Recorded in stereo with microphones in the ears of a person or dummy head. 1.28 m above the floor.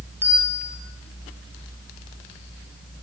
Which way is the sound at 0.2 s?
10° right (ahead or behind).